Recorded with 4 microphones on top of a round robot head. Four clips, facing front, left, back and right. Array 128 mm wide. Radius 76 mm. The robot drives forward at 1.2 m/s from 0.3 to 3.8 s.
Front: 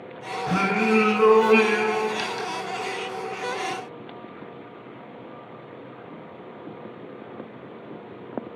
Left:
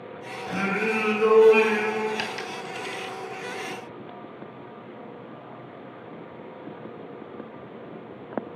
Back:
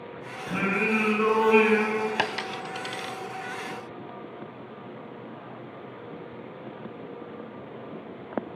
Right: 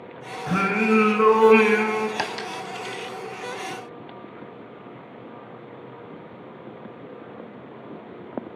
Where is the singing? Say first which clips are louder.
Right 5 dB, front 5 dB; 55° right, 3.5 m; by 2.1 s 90° right, 3 m.